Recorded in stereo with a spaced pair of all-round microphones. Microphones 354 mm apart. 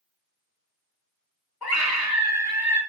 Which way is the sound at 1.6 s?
85° left.